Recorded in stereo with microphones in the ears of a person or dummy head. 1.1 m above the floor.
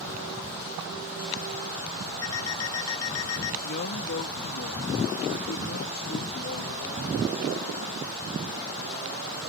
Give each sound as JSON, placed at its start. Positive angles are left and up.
{"t": 2.2, "sound": "an alarm clock", "side_deg": 85}
{"t": 3.6, "sound": "a man speaking", "side_deg": 50}